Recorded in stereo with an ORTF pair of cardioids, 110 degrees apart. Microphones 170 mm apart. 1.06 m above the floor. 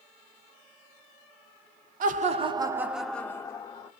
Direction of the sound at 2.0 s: 55° right.